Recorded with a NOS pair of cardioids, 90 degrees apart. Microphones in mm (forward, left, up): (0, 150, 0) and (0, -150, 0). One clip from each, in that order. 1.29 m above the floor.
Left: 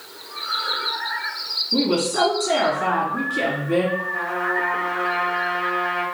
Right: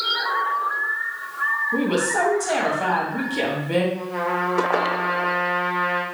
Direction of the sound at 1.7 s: 20° right.